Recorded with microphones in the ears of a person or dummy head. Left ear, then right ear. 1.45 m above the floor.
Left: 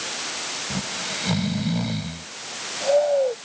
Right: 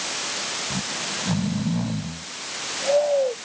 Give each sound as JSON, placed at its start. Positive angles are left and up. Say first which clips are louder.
{"t": 0.7, "sound": "snoring", "louder": "even", "side_deg": 75}